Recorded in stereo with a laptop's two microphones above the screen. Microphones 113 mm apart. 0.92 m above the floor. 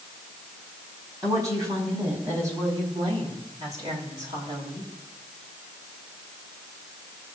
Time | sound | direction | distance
1.2 | a woman speaking | 30° right (ahead or behind) | 5.5 m